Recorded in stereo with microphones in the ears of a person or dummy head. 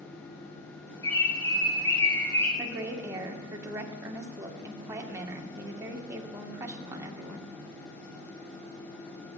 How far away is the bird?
About 3.5 m.